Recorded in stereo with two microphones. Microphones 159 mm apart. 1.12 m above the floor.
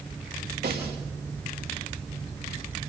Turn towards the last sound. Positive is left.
turn(degrees=-80)